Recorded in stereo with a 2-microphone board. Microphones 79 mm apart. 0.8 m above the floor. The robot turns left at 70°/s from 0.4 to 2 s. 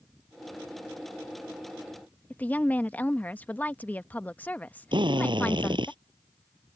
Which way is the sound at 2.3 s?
20° left (ahead or behind).